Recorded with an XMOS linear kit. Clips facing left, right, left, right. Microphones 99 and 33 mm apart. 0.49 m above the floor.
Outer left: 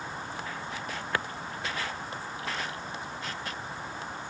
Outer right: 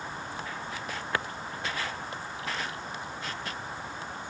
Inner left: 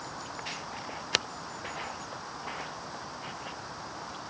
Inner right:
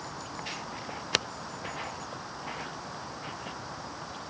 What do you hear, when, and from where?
Only background noise.